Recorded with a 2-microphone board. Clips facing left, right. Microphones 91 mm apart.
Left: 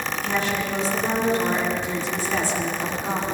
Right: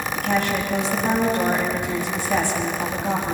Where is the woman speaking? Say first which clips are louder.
Right 3 dB; 60° right (ahead or behind), 8.5 m.